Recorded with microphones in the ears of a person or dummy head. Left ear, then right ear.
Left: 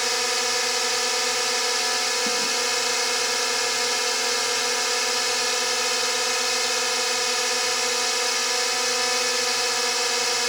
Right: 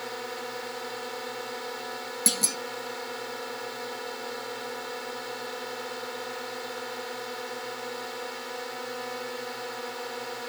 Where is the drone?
70° left (ahead or behind).